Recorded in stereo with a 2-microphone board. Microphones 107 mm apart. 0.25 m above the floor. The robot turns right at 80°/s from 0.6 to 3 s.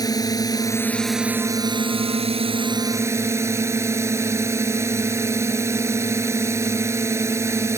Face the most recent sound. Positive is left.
turn(degrees=-30)